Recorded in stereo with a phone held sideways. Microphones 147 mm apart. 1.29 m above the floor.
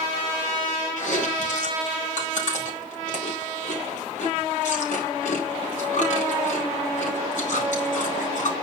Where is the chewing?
65° left (ahead or behind), 4.5 m.